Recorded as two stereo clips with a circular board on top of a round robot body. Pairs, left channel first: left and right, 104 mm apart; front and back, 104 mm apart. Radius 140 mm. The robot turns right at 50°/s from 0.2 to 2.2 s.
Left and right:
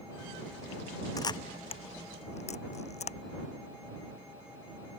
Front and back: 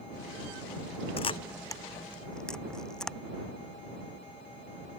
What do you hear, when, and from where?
1.2 s a camera shutter: 30° left; by 3.2 s 85° left